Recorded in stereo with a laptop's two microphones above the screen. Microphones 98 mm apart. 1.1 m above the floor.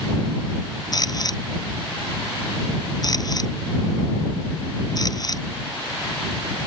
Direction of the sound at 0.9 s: 40° left (ahead or behind).